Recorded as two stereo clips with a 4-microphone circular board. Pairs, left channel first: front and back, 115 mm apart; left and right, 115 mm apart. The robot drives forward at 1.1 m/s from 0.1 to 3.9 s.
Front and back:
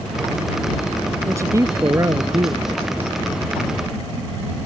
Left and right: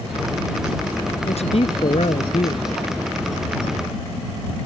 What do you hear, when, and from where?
1.2 s a man speaking: 115° left; by 2.8 s 125° left